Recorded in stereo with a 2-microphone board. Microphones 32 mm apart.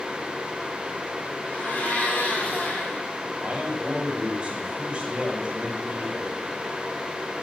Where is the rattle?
No rattle in this recording.